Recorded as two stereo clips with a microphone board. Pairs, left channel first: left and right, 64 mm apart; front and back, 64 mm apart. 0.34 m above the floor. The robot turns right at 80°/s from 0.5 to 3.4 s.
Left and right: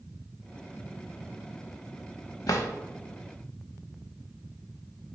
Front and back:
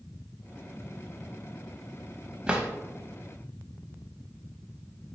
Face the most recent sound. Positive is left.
turn(degrees=180)